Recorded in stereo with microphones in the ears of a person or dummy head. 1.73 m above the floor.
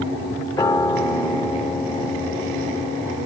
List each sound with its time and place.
0.6 s a piano: 25° left (ahead or behind), 0.9 m